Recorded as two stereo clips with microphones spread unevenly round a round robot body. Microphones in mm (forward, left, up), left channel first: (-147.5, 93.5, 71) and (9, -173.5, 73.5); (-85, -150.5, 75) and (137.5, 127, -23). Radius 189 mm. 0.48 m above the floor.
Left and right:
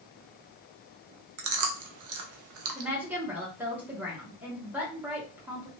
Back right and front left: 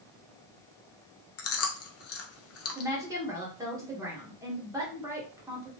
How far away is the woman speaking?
About 1.2 m.